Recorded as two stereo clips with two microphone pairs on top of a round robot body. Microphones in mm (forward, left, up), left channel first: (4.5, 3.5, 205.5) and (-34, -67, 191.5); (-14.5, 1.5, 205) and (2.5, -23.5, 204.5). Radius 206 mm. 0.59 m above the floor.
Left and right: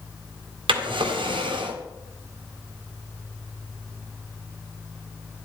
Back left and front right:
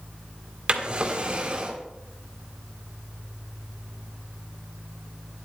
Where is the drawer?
115° right, 2.5 m.